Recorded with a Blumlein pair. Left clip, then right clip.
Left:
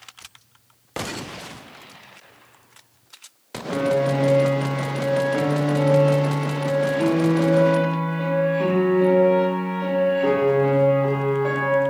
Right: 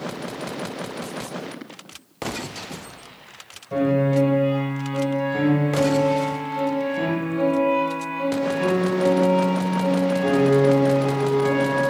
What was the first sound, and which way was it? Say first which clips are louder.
A piano: even; 5° left.